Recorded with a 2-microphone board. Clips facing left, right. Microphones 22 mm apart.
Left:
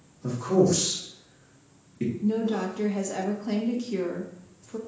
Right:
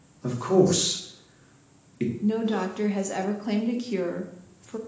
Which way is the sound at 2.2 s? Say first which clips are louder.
Right 1 dB; 25° right (ahead or behind).